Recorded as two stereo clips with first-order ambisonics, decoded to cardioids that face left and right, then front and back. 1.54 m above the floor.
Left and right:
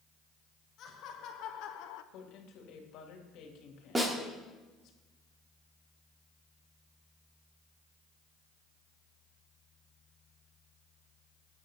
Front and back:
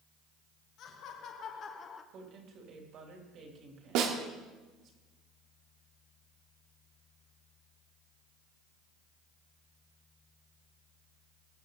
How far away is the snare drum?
About 1.8 m.